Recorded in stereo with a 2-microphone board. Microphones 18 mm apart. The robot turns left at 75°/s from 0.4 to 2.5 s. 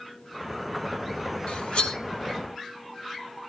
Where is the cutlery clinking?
75° left (ahead or behind), 1.3 m; by 2.0 s 60° left (ahead or behind), 1.3 m.